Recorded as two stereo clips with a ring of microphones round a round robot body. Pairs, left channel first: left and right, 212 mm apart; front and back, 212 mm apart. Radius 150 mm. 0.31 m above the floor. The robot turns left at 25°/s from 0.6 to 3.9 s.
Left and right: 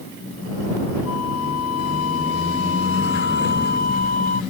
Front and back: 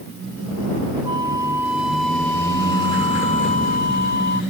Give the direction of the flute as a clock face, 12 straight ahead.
8 o'clock.